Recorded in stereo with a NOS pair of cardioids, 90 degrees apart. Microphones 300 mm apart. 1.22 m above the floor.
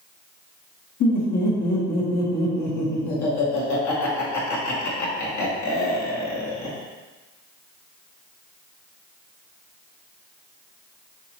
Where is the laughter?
70° left, 1.5 m.